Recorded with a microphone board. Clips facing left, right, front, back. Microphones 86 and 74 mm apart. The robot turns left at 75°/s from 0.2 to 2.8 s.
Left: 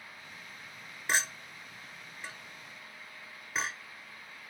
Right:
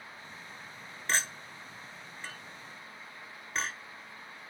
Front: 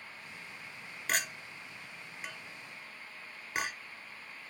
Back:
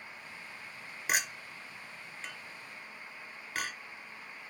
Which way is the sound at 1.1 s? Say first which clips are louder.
Left 1 dB, back 1 dB; 140° left.